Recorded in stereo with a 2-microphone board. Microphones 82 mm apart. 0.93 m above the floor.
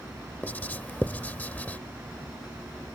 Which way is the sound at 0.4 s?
20° left (ahead or behind).